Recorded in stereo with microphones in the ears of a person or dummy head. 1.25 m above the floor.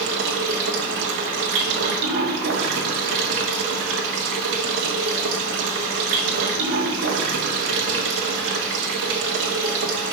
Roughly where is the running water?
Right.